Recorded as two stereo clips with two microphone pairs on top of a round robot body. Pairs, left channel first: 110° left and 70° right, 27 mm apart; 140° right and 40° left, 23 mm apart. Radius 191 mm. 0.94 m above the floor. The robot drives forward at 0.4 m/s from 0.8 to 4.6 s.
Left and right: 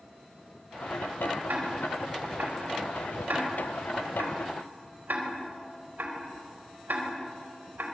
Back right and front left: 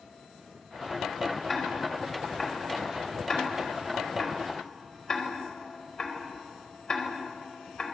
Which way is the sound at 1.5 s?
65° right.